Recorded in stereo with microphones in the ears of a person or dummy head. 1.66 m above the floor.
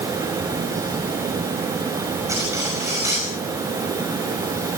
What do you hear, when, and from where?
2.3 s cutlery clinking: 15° right (ahead or behind), 6 m